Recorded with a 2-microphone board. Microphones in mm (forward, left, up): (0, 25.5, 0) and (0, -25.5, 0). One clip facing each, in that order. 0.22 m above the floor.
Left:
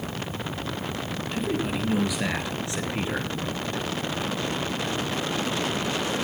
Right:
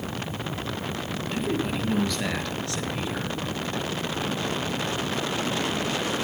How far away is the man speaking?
About 5 m.